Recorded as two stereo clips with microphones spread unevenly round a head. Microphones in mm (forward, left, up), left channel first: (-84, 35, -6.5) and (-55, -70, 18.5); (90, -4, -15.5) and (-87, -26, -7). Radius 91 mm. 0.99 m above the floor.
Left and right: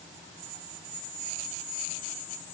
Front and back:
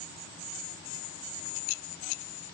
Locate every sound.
Only background noise.